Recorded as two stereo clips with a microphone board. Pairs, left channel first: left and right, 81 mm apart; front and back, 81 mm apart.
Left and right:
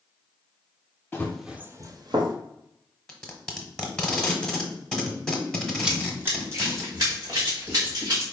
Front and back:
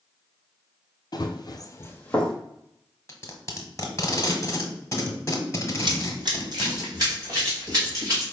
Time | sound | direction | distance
1.1 | running footsteps | 25° left | 0.7 m
3.1 | tape being pulled | 10° left | 1.1 m
5.8 | running footsteps | 170° right | 0.8 m